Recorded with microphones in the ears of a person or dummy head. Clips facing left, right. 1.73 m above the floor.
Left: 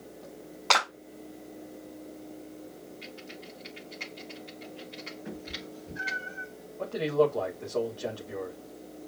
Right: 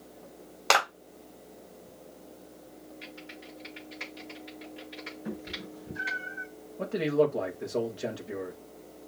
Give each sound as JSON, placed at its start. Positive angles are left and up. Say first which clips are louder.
{"t": 0.7, "sound": "a clap", "louder": "right 2 dB", "side_deg": -45, "distance_m": 3.0}
{"t": 3.0, "sound": "typing on a keyboard", "louder": "left 2 dB", "side_deg": -25, "distance_m": 4.0}
{"t": 5.2, "sound": "a cat meowing", "louder": "right 4 dB", "side_deg": -45, "distance_m": 4.0}
{"t": 6.8, "sound": "a man speaking", "louder": "even", "side_deg": -20, "distance_m": 1.5}